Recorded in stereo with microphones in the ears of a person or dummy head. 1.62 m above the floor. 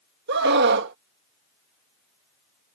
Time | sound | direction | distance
0.3 | a scream | 65° right (ahead or behind) | ?